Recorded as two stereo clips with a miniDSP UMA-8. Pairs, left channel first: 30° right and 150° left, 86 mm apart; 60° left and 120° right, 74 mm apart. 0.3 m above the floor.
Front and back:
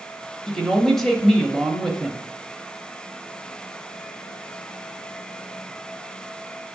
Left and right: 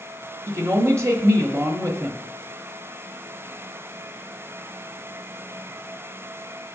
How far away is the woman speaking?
About 1.1 m.